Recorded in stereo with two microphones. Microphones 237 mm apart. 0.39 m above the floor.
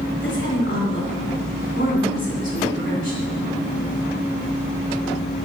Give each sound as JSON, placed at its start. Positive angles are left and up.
{"t": 0.2, "sound": "a woman speaking", "side_deg": 55, "distance_m": 2.5}